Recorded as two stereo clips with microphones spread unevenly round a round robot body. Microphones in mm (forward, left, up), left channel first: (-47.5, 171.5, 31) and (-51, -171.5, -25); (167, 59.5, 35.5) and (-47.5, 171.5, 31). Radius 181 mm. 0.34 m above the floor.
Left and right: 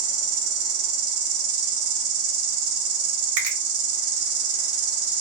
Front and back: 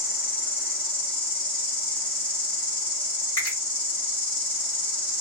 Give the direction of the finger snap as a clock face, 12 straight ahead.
3 o'clock.